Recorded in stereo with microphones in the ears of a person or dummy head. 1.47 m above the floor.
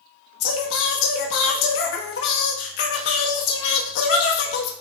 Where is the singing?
70° left (ahead or behind), 1.4 m.